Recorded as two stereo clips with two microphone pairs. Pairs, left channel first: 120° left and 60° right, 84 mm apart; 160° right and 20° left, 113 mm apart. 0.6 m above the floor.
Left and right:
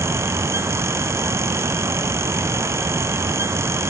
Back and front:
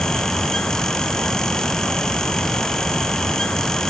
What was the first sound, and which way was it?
Only background noise.